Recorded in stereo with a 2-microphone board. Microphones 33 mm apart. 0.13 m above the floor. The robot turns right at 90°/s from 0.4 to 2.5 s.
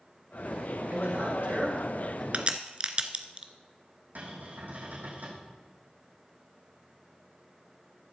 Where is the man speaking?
110° right, 6.5 m; by 2.2 s 15° left, 6.5 m.